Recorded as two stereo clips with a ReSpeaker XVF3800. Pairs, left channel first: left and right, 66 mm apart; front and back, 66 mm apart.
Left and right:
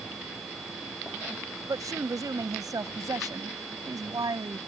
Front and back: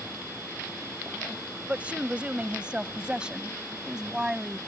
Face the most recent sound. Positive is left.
turn(degrees=-100)